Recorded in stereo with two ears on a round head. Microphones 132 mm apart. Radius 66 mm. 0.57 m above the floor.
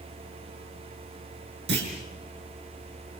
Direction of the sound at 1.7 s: 85° right.